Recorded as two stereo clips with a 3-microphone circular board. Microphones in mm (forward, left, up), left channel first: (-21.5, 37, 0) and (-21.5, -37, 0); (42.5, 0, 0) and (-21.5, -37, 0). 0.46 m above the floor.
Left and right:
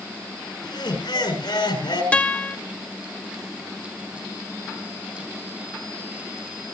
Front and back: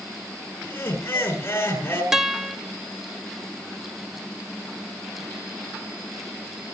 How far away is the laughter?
About 7 m.